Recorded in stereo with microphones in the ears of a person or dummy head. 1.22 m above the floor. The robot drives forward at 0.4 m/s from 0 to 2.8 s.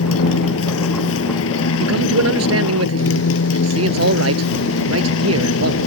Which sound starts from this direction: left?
A motorcycle, at 0.0 s.